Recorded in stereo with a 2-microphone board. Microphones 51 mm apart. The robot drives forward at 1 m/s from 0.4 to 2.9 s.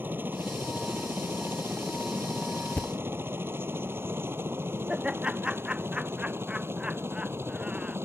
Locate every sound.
0.0 s a helicopter: 40° right (ahead or behind); by 8.1 s 55° right (ahead or behind)
2.8 s a thud: 40° left (ahead or behind); by 3.0 s 35° left (ahead or behind)
4.9 s laughter: 20° right (ahead or behind)